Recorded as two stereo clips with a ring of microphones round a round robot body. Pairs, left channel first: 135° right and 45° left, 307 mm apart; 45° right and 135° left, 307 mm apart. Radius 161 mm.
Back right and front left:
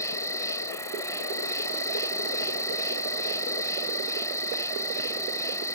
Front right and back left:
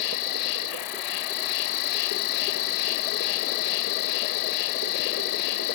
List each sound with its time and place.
0.0 s an insect: 55° right